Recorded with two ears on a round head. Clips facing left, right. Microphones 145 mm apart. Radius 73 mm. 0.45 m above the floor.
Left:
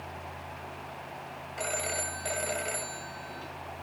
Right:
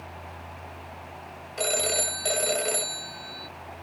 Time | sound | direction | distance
1.6 | a phone ringing | 45° right (ahead or behind) | ?